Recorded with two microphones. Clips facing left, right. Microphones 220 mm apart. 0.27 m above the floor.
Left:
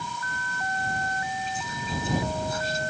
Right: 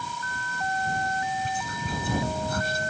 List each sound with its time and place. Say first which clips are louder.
1.4 s whispering: right 2 dB; 60° right (ahead or behind)